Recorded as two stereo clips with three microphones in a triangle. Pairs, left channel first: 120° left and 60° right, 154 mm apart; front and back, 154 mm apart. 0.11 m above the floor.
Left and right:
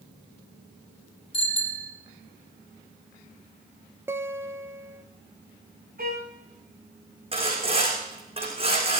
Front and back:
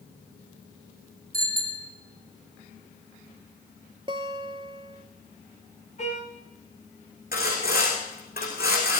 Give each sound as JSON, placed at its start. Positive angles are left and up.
{"t": 1.3, "sound": "a bicycle bell", "azimuth_deg": 170, "distance_m": 3.0}
{"t": 4.1, "sound": "a guitar", "azimuth_deg": -130, "distance_m": 0.8}
{"t": 6.0, "sound": "a violin", "azimuth_deg": -45, "distance_m": 5.0}
{"t": 7.3, "sound": "sawing", "azimuth_deg": -5, "distance_m": 6.5}